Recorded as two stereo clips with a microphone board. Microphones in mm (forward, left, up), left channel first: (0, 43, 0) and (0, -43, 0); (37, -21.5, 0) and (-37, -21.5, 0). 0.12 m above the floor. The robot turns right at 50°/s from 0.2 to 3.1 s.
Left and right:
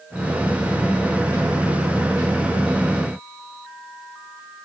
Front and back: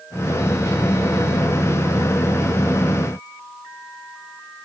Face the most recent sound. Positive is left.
No sound to turn to.